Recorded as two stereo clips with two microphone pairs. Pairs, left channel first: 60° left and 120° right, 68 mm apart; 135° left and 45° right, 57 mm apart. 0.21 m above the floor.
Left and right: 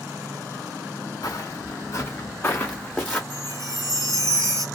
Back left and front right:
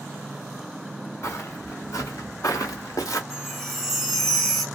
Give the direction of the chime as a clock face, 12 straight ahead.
4 o'clock.